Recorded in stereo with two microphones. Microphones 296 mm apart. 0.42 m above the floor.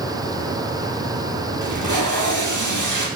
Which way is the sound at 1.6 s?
85° right.